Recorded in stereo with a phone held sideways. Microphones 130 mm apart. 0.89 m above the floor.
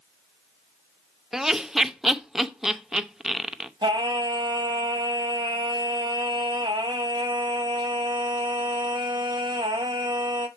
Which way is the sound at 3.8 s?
35° right (ahead or behind).